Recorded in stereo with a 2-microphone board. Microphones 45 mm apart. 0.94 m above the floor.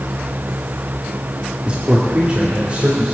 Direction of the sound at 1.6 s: 30° right (ahead or behind).